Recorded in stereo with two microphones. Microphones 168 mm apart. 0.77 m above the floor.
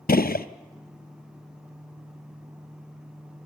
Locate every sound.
0.1 s a gunshot: 70° left (ahead or behind), 0.6 m